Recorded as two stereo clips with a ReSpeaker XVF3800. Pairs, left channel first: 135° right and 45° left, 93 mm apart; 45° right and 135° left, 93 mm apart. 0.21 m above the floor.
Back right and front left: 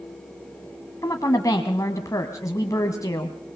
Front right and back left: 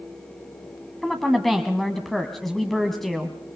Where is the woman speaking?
130° right, 1.4 m.